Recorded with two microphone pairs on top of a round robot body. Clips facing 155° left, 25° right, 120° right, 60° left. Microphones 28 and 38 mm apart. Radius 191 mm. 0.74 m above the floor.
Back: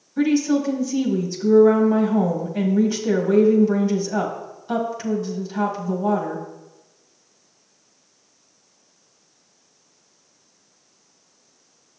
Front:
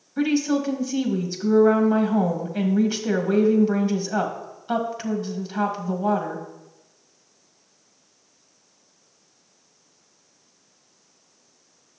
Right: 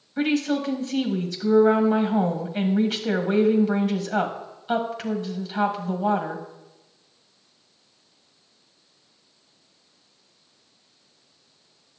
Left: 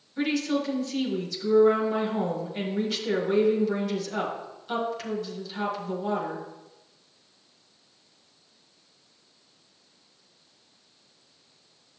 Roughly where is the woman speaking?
Ahead right.